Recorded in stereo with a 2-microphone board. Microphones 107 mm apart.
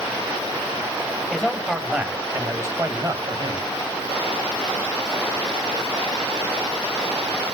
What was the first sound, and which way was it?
A man speaking, 5° right (ahead or behind).